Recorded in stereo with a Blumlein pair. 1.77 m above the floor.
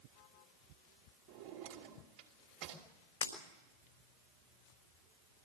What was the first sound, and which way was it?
A drawer, 45° right.